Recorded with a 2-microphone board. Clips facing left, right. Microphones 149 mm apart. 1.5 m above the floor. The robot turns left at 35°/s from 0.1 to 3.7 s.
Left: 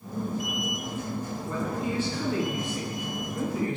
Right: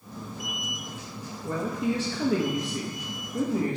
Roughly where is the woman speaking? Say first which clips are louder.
Right 4 dB; ahead right.